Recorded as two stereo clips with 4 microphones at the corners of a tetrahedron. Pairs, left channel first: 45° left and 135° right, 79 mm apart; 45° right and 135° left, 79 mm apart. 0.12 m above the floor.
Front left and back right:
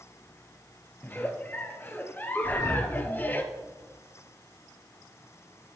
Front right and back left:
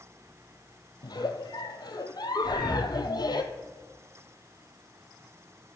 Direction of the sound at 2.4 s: 35° left.